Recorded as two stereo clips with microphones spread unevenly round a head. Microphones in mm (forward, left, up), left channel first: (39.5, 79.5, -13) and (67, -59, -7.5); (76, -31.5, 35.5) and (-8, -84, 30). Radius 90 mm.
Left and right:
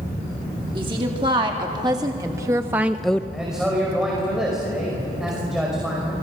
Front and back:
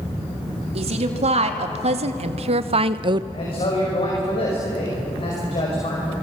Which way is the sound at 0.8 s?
145° right.